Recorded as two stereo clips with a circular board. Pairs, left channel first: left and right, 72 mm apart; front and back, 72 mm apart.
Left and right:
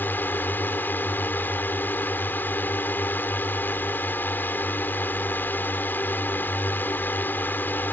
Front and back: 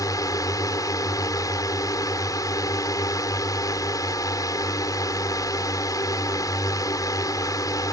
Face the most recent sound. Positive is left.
turn(degrees=30)